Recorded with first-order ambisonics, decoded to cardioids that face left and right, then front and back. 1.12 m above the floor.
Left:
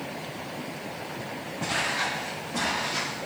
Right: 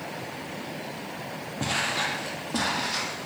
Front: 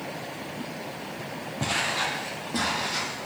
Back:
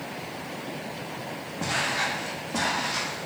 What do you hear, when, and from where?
1.6 s footsteps: 45° right, 1.6 m; by 3.3 s 70° right, 2.5 m